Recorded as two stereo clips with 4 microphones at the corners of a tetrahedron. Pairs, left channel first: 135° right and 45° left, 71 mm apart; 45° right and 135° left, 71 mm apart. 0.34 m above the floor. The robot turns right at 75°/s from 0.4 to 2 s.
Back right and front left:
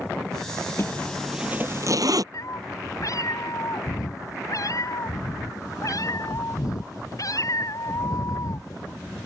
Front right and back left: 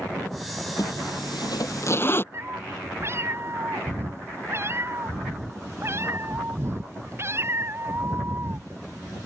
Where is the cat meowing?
175° right.